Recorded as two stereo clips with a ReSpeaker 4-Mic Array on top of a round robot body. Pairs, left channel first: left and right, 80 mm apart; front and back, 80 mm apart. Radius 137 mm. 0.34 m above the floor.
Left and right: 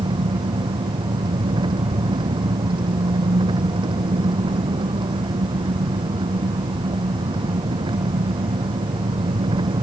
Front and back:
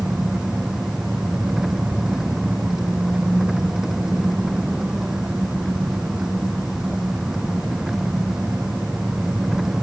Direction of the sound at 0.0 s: 95° right.